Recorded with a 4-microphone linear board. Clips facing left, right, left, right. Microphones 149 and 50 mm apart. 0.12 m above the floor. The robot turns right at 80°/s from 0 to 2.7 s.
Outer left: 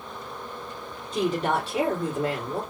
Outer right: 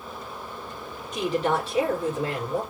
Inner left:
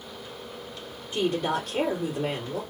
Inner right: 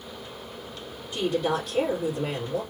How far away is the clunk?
No clunk in this recording.